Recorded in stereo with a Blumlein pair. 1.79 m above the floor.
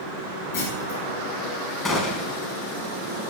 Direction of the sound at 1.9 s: 15° left.